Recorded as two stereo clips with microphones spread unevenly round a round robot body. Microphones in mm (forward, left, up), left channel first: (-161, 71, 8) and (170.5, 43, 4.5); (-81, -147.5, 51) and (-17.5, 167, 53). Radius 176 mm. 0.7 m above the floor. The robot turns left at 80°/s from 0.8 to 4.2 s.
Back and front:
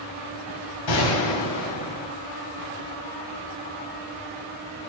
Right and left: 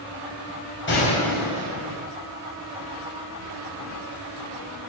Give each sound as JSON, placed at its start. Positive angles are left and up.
{"t": 0.9, "sound": "a gunshot", "azimuth_deg": -155, "distance_m": 5.5}